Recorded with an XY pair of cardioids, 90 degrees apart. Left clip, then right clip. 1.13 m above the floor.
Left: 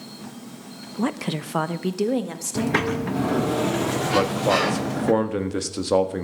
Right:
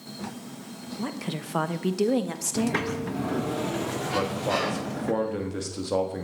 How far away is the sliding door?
About 0.8 m.